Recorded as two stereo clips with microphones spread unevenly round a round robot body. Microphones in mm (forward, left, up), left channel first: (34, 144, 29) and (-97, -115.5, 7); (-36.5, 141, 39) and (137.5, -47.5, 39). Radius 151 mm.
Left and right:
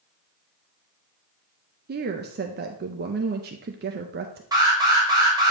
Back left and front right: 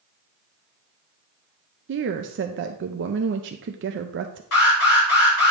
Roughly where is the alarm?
Behind.